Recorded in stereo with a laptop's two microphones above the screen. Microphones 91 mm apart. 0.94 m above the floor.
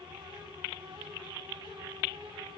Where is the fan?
65° right (ahead or behind), 5.5 m.